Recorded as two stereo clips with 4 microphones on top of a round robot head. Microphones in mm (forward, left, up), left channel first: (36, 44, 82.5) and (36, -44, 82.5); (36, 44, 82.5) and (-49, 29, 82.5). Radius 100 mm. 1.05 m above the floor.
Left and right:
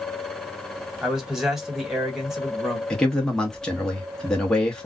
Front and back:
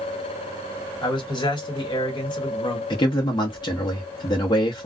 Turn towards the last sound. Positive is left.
turn(degrees=10)